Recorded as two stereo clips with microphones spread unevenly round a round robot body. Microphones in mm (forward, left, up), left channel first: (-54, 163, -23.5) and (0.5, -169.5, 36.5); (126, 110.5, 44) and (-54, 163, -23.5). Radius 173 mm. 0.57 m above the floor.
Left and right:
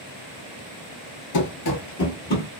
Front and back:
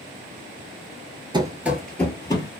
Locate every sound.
1.3 s running footsteps: 85° left, 0.6 m; by 2.5 s 30° left, 1.0 m